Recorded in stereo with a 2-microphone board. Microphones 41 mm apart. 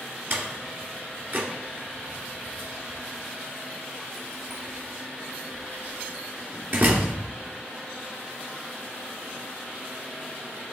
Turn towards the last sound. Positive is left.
turn(degrees=-55)  # may be behind; listen again after turning